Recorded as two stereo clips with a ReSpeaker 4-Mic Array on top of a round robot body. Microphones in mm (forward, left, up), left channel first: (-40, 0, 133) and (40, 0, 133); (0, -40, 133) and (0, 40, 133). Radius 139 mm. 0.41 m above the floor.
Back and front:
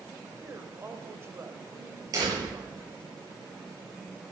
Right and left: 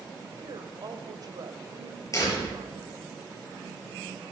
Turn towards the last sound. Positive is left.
turn(degrees=-40)